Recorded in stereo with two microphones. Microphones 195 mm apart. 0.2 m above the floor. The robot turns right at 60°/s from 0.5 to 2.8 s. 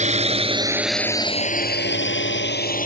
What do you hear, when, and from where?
0.0 s a drone: 35° right (ahead or behind); by 2.9 s 45° left (ahead or behind)